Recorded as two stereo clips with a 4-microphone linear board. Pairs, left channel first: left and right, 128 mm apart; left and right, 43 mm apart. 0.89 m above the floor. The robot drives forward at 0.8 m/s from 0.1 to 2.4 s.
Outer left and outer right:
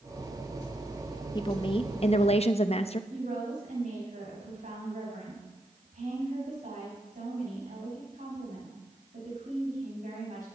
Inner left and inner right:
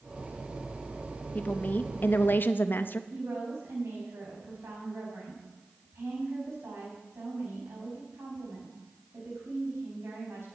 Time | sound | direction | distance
1.4 | a woman speaking | 35° left (ahead or behind) | 1.1 m
3.1 | a woman speaking | 85° right | 5.5 m